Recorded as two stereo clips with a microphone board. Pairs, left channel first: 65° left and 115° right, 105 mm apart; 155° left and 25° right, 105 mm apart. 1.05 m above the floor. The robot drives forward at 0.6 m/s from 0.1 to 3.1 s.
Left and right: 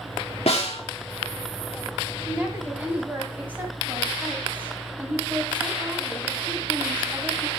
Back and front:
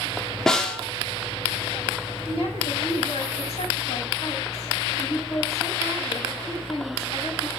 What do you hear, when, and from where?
0.5 s a snare drum: 75° left, 2 m; by 0.8 s 80° left, 2 m
2.2 s a woman speaking: 175° left, 6.5 m